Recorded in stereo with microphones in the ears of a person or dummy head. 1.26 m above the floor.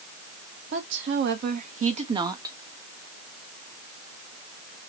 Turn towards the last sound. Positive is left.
turn(degrees=-10)  # may be behind; listen again after turning